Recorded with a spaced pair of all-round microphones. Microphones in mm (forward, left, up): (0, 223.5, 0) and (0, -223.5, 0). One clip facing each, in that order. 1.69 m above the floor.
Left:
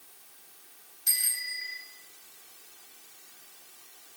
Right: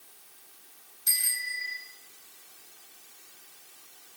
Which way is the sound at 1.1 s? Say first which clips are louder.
Right 3 dB; 15° left (ahead or behind).